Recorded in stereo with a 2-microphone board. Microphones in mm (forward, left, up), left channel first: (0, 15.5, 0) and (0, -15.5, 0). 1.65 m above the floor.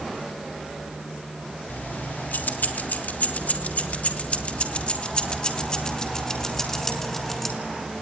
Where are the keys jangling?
80° left, 3.5 m; by 7.6 s 10° left (ahead or behind), 4 m.